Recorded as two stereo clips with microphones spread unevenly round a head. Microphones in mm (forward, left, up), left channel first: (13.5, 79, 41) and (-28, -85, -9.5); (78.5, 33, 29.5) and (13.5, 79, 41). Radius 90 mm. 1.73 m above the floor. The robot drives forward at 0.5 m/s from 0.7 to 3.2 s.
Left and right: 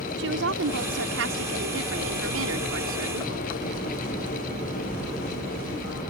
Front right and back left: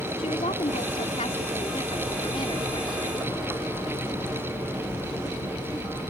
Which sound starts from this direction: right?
A woman speaking, at 0.2 s.